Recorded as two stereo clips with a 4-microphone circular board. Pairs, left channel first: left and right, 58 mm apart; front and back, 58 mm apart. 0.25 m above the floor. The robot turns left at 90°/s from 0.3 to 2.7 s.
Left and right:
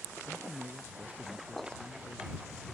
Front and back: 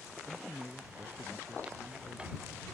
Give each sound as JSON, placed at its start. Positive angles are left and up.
{"t": 0.2, "sound": "a man speaking", "azimuth_deg": -70}